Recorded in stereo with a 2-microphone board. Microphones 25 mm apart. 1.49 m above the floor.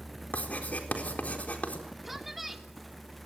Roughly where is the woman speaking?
Centre.